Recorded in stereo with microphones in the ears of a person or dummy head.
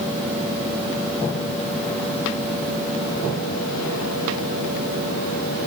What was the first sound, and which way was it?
Only background noise.